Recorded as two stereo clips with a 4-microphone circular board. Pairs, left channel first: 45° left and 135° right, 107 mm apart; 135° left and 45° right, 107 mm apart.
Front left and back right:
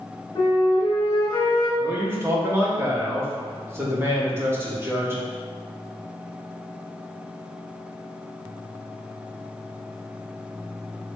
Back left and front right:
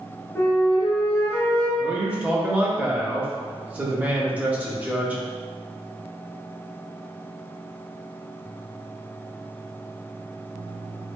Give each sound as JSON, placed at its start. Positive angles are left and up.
{"t": 0.3, "sound": "a flute", "azimuth_deg": 75, "distance_m": 1.5}
{"t": 1.8, "sound": "a man speaking", "azimuth_deg": -105, "distance_m": 0.9}